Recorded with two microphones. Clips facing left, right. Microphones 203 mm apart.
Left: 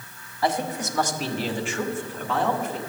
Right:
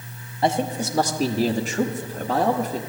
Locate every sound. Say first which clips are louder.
0.4 s a man speaking: right 3 dB; 25° right (ahead or behind), 1.2 m; by 2.8 s 35° right (ahead or behind), 1.7 m